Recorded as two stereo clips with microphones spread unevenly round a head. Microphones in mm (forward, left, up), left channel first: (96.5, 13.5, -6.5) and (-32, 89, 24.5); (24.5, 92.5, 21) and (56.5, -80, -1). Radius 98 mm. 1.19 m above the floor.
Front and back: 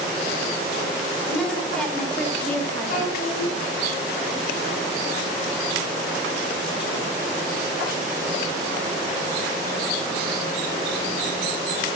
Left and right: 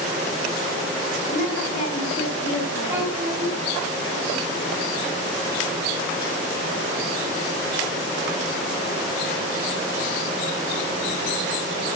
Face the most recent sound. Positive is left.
turn(degrees=-5)